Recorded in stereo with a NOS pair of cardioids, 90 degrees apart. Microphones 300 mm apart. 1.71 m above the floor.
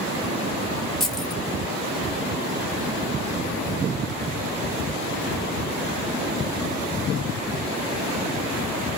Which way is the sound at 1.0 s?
Straight ahead.